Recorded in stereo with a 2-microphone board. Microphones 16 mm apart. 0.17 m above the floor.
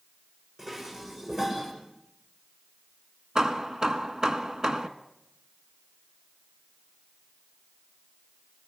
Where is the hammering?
45° right (ahead or behind), 1.1 m.